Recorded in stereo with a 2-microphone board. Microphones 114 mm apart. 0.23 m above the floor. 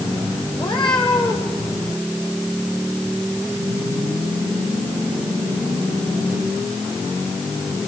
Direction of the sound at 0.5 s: 45° left (ahead or behind).